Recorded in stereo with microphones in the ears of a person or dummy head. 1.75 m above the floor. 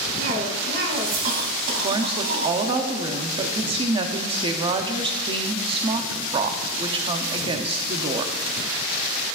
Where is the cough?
60° right (ahead or behind), 3 m.